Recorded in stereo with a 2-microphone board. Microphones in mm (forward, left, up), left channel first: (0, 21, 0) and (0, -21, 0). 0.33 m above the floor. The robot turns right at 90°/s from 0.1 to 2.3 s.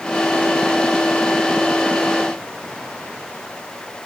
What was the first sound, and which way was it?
Only background noise.